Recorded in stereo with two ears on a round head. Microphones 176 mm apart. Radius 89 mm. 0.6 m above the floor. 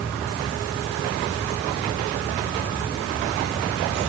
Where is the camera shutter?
No camera shutter in this recording.